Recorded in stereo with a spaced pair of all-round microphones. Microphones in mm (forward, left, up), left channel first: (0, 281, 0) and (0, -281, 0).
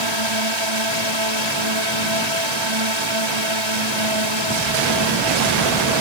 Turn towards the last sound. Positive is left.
turn(degrees=-50)  # may be behind; listen again after turning